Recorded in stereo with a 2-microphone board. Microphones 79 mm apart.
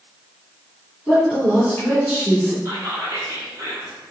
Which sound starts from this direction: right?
Whispering, at 2.6 s.